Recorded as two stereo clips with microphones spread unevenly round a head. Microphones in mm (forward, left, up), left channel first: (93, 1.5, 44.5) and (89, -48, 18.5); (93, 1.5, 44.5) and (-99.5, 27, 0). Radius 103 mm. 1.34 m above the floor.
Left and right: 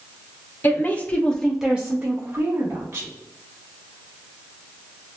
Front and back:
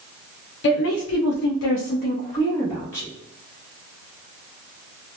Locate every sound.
0.6 s a woman speaking: 30° left, 0.9 m; by 3.1 s 90° right, 1.2 m